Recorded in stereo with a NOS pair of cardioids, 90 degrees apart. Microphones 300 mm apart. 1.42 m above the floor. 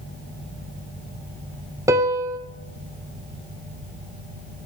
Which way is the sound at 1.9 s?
10° right.